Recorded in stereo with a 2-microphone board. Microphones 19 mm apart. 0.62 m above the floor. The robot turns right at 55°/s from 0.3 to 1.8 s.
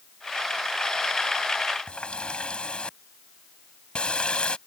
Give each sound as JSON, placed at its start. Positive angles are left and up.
{"t": 1.9, "sound": "a running tap", "side_deg": 65}